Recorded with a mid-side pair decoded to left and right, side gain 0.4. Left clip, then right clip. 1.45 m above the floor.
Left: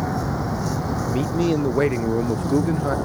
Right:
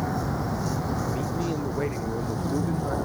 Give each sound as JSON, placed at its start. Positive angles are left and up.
{"t": 0.0, "sound": "a vehicle", "azimuth_deg": 30}
{"t": 1.1, "sound": "a man speaking", "azimuth_deg": 70}